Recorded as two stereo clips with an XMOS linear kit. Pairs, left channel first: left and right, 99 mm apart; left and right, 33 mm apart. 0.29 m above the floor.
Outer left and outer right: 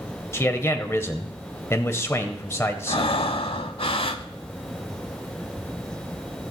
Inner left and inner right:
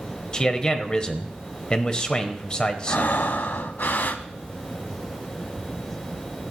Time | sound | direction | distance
0.3 | a man speaking | 25° left (ahead or behind) | 1.0 m
2.9 | breathing | 65° left (ahead or behind) | 0.6 m